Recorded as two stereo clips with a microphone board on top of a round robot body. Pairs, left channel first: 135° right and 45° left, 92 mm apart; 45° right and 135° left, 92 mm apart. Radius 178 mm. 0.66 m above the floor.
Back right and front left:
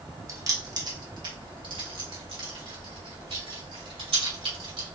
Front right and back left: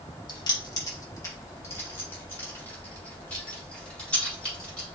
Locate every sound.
0.3 s keys jangling: 10° right, 1.2 m; by 5.0 s 35° left, 3.5 m